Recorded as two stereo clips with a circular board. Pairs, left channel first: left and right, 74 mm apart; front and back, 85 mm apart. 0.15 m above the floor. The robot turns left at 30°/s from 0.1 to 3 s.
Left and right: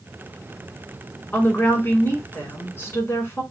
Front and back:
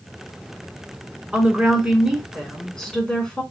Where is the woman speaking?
125° left, 1.2 m; by 3.4 s 75° left, 1.2 m.